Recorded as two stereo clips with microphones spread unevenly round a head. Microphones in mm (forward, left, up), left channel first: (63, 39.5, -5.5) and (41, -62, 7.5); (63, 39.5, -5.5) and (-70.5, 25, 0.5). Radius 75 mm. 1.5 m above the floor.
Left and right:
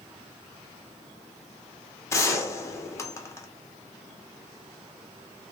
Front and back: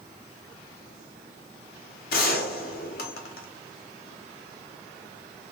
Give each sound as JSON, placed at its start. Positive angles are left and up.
{"t": 2.1, "sound": "a gunshot", "azimuth_deg": 10, "distance_m": 0.8}